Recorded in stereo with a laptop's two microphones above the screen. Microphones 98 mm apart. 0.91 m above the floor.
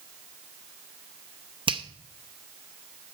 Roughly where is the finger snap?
Right.